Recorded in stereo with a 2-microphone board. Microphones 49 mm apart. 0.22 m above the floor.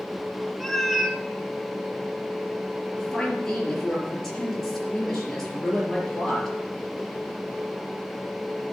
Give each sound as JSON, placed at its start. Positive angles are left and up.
{"t": 0.6, "sound": "a cat meowing", "side_deg": 5, "distance_m": 0.9}
{"t": 3.0, "sound": "a woman speaking", "side_deg": 10, "distance_m": 4.0}